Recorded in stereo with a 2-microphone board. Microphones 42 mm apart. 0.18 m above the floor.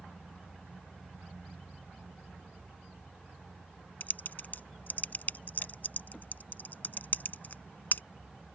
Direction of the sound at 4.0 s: 50° left (ahead or behind).